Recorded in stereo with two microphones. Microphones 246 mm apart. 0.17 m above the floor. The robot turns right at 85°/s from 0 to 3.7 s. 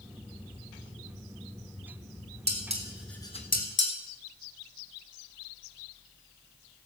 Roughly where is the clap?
I don't hear a clap.